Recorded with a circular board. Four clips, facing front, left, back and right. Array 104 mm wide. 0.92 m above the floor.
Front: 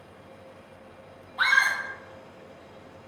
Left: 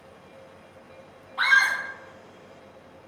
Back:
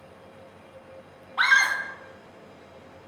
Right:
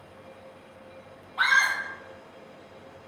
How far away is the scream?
About 1.0 m.